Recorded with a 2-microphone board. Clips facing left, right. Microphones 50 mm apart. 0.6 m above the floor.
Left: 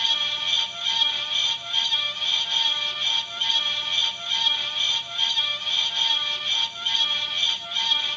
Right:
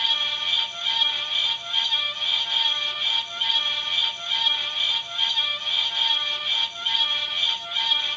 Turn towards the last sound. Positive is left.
No sound to turn to.